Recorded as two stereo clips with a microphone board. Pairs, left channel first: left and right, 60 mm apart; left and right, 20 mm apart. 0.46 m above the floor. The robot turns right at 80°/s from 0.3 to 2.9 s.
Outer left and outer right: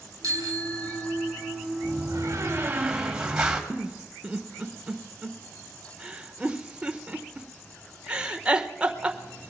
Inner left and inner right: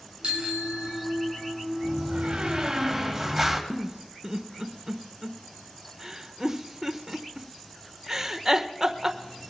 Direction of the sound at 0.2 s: 115° right.